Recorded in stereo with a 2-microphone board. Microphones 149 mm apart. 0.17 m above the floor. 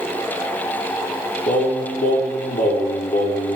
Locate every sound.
1.5 s singing: 70° left (ahead or behind), 0.9 m